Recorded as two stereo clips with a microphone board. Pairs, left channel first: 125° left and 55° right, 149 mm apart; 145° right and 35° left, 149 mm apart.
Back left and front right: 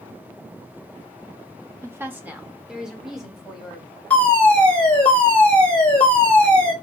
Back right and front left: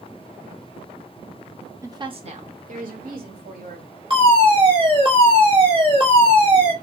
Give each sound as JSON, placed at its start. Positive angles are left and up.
{"t": 1.8, "sound": "a woman speaking", "azimuth_deg": -10, "distance_m": 0.7}
{"t": 4.1, "sound": "a fire alarm", "azimuth_deg": 50, "distance_m": 2.0}